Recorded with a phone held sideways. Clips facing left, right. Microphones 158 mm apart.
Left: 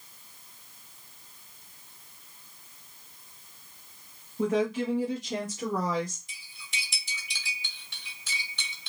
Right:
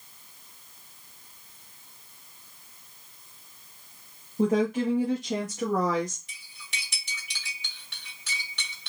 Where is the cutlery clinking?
70° right (ahead or behind), 2.5 m.